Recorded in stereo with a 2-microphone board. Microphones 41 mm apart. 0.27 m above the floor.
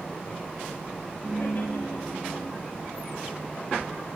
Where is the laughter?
55° left (ahead or behind), 4.5 m.